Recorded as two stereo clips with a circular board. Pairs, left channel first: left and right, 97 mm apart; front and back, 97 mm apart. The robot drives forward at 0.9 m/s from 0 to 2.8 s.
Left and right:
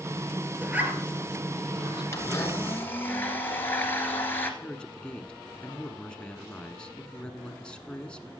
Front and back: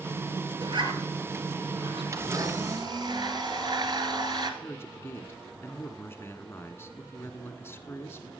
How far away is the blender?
About 1.3 m.